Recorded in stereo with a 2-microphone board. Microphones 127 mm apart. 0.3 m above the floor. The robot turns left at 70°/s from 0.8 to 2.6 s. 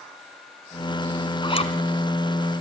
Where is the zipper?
35° left (ahead or behind), 1.5 m; by 1.7 s 55° left (ahead or behind), 1.5 m.